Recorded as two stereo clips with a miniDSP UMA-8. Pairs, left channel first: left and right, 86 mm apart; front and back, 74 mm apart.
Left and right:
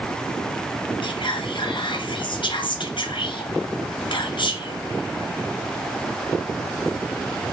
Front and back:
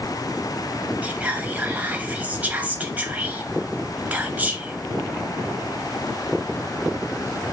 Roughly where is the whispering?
Left.